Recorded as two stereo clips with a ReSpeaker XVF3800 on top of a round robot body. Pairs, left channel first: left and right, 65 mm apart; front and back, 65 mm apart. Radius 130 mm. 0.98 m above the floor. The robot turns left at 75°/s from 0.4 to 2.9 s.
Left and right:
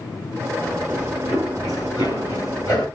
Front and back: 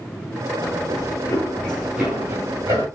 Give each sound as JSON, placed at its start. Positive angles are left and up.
{"t": 0.6, "sound": "running footsteps", "azimuth_deg": 30, "distance_m": 1.4}